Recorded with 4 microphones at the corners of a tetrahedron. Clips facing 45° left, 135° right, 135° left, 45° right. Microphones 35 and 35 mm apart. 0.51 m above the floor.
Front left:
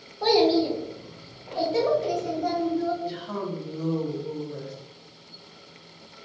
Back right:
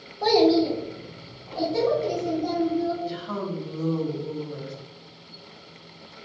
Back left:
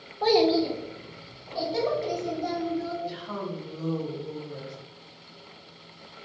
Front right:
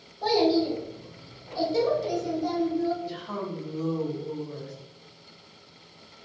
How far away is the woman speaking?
About 1.0 m.